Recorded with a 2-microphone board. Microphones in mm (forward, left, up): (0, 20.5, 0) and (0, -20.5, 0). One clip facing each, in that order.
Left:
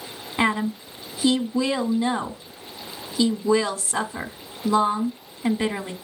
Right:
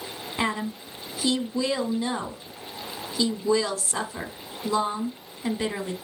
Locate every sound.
0.4 s a woman speaking: 20° left (ahead or behind), 1.0 m